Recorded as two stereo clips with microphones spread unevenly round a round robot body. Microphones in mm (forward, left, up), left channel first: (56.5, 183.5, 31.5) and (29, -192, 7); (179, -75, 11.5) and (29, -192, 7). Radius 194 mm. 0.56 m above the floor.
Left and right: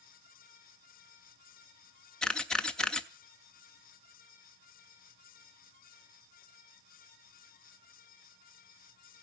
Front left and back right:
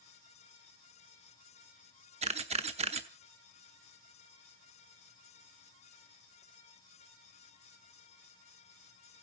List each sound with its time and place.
2.2 s a camera shutter: straight behind, 0.6 m